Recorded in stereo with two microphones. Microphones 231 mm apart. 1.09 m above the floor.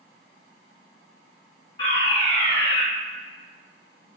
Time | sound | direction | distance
1.8 | a fire alarm | 25° left (ahead or behind) | 1.2 m